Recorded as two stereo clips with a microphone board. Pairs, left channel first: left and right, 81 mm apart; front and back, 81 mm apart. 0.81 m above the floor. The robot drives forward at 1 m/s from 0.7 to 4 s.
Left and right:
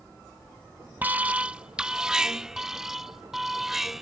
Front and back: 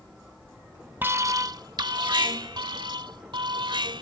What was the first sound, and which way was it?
An alarm, 140° right.